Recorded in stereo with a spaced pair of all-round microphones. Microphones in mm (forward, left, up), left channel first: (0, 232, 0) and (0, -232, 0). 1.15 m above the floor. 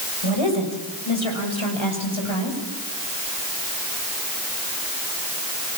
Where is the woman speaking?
85° left, 6 m.